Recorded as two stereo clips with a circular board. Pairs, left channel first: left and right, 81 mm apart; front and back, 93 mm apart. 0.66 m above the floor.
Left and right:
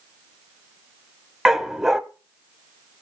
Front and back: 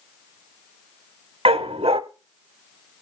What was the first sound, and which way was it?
A dog barking, 175° right.